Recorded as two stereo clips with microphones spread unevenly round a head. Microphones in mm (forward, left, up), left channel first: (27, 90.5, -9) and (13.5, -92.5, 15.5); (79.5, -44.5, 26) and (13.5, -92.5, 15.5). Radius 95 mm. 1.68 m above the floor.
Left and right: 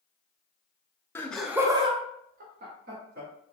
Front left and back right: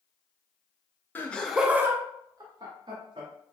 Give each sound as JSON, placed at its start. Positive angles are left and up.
{"t": 1.1, "sound": "laughter", "azimuth_deg": 5, "distance_m": 0.5}